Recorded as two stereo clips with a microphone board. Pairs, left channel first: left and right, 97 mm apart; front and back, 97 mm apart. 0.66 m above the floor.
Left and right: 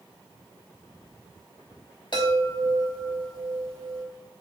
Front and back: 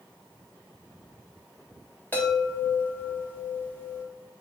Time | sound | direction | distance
2.1 | a chime | 65° left | 3.5 m